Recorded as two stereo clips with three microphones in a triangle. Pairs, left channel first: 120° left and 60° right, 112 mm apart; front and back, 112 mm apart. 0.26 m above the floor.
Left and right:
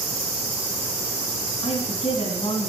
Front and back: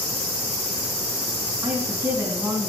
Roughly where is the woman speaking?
Behind left.